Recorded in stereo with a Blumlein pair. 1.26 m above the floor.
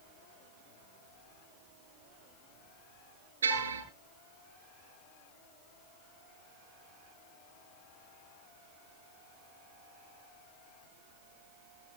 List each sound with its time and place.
3.4 s a car horn: 70° right, 9.5 m